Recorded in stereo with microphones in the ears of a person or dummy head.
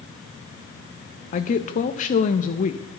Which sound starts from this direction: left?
A woman speaking, at 1.3 s.